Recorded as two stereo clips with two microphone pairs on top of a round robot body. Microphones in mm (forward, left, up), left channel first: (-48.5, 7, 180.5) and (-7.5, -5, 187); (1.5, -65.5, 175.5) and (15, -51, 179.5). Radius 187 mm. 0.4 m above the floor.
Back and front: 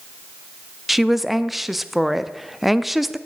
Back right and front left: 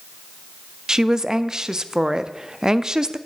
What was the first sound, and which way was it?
A woman speaking, 90° left.